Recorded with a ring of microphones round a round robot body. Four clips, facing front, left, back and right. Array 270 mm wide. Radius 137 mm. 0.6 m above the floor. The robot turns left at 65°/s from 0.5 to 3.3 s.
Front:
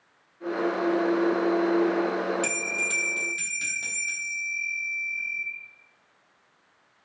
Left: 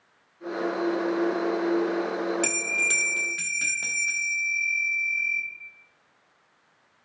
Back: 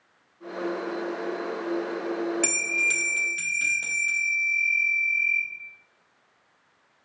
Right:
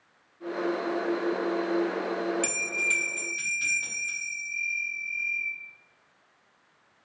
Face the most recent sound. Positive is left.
turn(degrees=100)